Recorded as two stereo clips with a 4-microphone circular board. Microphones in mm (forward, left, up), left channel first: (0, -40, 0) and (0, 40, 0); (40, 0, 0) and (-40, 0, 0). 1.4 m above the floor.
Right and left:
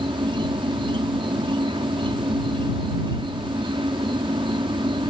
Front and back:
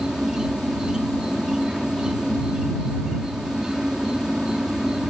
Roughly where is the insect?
Left.